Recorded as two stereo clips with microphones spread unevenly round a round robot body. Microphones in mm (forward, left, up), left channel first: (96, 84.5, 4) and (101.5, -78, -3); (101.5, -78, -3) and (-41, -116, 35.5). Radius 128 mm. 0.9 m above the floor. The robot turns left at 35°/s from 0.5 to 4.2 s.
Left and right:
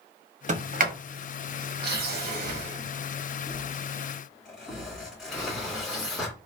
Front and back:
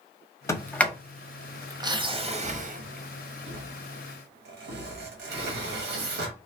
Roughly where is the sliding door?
Ahead right.